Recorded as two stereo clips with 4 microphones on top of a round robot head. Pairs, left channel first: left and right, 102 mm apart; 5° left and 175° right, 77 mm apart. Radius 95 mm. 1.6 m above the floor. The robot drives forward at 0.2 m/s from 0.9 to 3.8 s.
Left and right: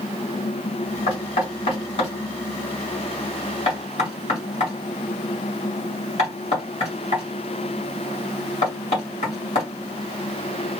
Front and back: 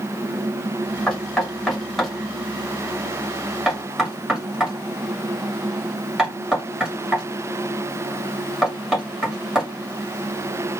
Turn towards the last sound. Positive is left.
turn(degrees=100)